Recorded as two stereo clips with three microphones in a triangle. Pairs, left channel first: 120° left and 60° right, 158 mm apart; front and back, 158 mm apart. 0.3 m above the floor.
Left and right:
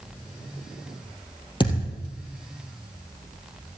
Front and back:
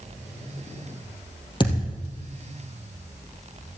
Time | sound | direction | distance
1.6 | a thud | 60° left | 2.5 m